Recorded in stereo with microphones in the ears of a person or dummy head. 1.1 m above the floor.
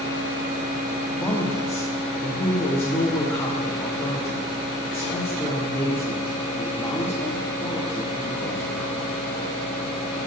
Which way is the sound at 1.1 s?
10° left (ahead or behind).